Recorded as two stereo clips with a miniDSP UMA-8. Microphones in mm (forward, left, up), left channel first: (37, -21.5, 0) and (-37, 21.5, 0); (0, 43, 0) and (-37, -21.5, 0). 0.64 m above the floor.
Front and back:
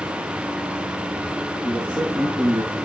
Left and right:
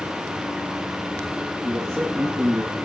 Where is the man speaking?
170° right, 8.5 m.